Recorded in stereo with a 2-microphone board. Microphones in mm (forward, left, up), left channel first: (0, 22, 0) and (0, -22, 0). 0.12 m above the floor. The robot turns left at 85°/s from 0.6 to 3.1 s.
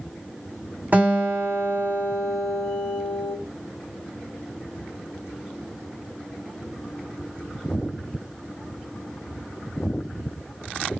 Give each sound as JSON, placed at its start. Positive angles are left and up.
{"t": 0.9, "sound": "a guitar", "azimuth_deg": -50, "distance_m": 2.0}